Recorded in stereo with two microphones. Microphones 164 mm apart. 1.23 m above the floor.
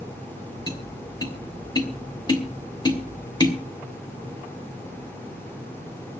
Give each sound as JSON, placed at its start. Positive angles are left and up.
{"t": 0.7, "sound": "tapping", "side_deg": 25, "distance_m": 2.5}